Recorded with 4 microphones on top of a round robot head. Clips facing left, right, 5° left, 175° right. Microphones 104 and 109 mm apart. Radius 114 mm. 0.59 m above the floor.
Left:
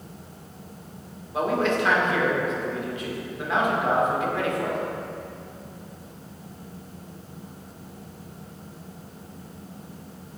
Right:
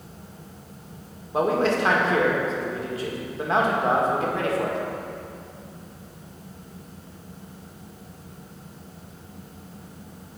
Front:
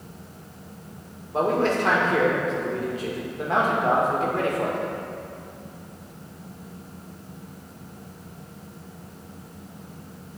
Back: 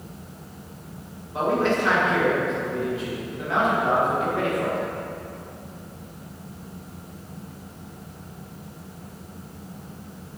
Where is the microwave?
No microwave in this recording.